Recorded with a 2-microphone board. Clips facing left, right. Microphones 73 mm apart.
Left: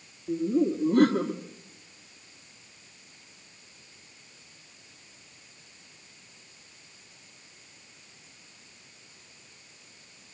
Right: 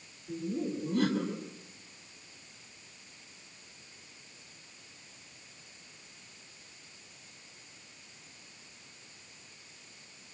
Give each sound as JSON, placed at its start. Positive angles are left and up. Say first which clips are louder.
{"t": 0.3, "sound": "laughter", "louder": "left 9 dB", "side_deg": 60, "distance_m": 2.5}